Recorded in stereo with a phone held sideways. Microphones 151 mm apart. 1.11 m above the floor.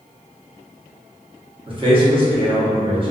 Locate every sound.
1.7 s a man speaking: 35° right (ahead or behind), 0.9 m